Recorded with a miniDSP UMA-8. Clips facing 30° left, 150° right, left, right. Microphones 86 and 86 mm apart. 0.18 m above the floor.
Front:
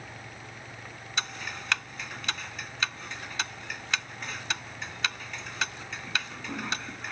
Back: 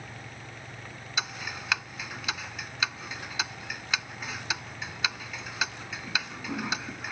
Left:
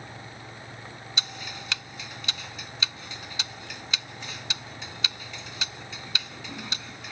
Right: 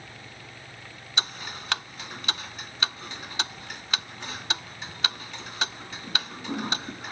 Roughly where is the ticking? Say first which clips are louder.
Back 1 dB, right 5 dB; ahead right.